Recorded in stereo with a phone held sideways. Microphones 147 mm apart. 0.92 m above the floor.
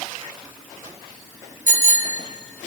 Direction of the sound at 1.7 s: 70° left (ahead or behind).